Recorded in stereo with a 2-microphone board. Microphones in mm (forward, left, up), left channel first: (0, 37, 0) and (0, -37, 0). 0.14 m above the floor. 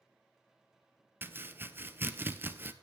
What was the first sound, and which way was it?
Chopping, 30° right (ahead or behind).